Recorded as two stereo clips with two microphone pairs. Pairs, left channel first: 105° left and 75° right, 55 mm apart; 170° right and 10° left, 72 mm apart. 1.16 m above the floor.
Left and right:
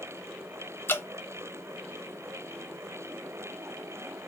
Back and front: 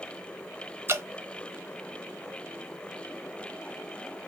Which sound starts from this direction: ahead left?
Dripping, at 0.9 s.